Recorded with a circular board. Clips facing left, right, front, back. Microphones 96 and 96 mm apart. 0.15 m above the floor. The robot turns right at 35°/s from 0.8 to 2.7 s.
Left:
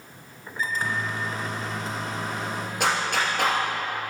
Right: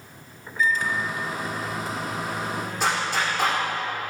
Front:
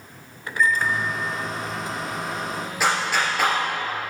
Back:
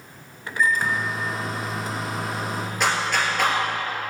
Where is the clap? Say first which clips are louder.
Left 1 dB, front 1 dB; 85° left, 2.5 m.